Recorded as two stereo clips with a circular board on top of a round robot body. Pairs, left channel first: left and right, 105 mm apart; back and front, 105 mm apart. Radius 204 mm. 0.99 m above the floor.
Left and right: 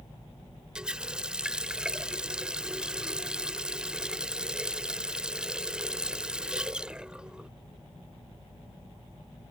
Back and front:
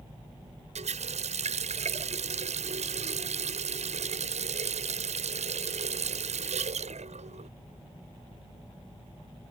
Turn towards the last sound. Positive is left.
turn(degrees=-10)